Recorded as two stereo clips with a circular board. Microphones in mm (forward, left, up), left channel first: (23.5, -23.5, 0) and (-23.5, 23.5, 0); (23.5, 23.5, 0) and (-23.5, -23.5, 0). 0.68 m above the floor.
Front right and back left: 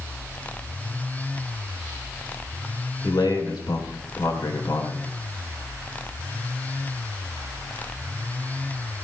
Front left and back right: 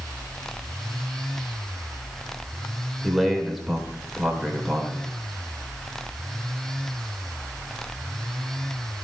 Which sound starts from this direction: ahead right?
A man speaking, at 3.0 s.